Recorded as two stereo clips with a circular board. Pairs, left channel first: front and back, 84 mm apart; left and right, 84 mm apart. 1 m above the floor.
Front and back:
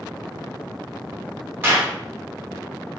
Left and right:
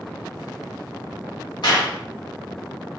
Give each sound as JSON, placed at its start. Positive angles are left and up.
{"t": 1.6, "sound": "a clap", "azimuth_deg": 115, "distance_m": 1.1}